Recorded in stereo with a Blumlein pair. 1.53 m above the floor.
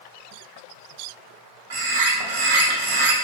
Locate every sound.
1.7 s a bird: 55° right, 0.5 m